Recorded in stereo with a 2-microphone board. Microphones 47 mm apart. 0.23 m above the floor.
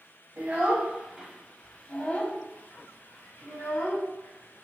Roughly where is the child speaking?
Right.